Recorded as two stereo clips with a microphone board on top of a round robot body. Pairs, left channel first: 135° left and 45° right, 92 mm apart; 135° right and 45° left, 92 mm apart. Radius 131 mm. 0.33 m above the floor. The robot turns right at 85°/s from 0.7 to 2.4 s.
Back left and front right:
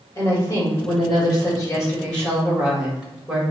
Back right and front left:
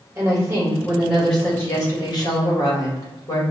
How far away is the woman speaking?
About 1.7 m.